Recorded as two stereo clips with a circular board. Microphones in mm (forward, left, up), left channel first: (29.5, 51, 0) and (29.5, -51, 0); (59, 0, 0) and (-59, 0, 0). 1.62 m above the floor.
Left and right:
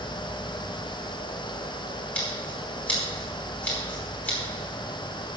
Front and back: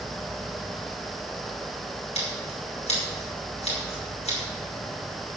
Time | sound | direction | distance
2.1 | scissors | 15° left | 5.5 m